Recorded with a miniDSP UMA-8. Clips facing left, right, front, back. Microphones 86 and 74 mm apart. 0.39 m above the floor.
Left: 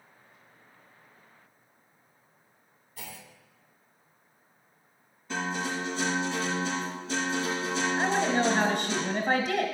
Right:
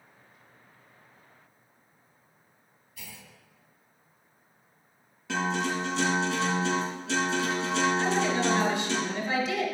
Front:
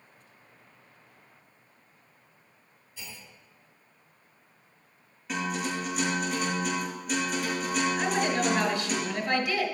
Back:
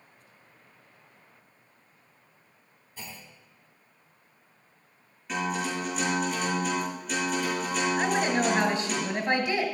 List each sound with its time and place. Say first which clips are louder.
3.0 s a clunk: left 4 dB, back 2 dB; 140° left, 1.1 m
5.3 s a guitar: right 3 dB, back 1 dB; 90° right, 5 m
8.0 s a woman speaking: even, back 1 dB; 120° left, 2 m